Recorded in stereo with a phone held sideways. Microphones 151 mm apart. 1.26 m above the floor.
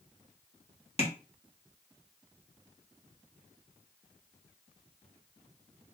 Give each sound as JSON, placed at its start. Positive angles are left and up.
{"t": 1.0, "sound": "tapping", "side_deg": 40, "distance_m": 1.4}